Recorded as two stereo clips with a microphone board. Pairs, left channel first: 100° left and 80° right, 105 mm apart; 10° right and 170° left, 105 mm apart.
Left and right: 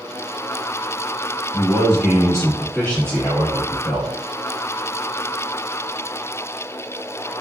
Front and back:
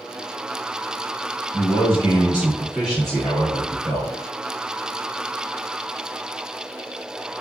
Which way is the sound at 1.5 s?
175° right.